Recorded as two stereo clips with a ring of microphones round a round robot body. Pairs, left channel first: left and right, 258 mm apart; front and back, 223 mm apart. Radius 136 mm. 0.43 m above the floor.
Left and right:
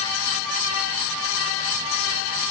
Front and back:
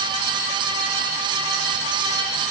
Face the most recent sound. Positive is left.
No sound to turn to.